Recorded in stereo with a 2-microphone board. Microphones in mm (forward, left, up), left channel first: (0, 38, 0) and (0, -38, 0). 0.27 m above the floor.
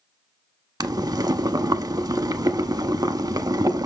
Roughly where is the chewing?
I don't hear chewing.